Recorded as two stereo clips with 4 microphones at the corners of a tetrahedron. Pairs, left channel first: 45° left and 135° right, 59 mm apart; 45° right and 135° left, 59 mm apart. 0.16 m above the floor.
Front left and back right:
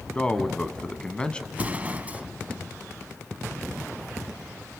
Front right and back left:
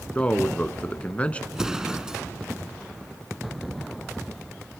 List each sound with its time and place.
0.1 s a man speaking: 5° right, 1.2 m
1.5 s an explosion: 160° right, 0.9 m